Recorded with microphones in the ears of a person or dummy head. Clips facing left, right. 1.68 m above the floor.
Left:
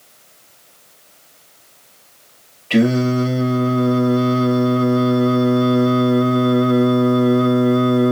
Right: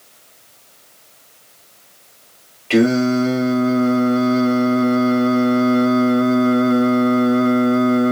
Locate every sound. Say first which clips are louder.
2.7 s singing: right 1 dB; 45° right (ahead or behind), 2 m